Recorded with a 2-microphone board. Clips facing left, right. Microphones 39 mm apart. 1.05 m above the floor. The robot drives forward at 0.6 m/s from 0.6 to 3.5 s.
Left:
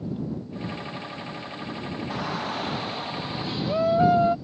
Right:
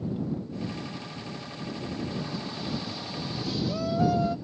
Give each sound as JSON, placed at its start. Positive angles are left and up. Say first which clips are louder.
{"t": 2.1, "sound": "a shout", "louder": "left 5 dB", "side_deg": 65}